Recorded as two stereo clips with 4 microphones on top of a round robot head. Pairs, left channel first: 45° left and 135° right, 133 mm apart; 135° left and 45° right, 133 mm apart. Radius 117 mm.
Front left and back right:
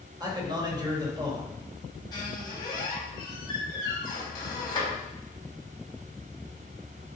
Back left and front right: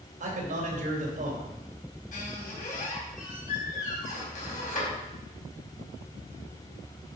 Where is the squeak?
105° left, 4 m.